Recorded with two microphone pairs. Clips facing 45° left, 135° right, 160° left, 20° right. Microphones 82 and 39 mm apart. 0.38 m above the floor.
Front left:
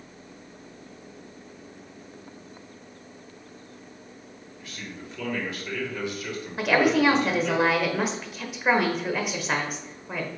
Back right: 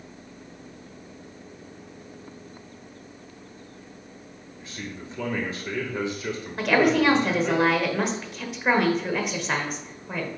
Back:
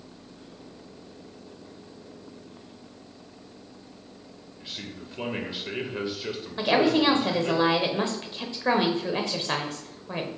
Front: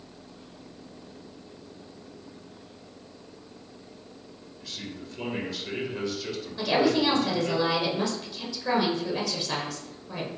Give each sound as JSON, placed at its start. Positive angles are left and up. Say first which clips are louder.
{"t": 4.6, "sound": "a man speaking", "louder": "back right 3 dB, even", "azimuth_deg": -160, "distance_m": 1.3}
{"t": 6.6, "sound": "a woman speaking", "louder": "even, back 2 dB", "azimuth_deg": 130, "distance_m": 1.0}